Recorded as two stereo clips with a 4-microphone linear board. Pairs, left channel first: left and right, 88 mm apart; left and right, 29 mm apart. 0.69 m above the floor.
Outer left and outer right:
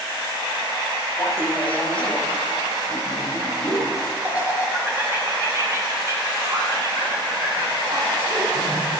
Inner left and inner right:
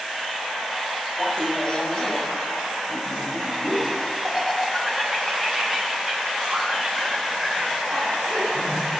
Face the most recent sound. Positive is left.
turn(degrees=-55)  # may be behind; listen again after turning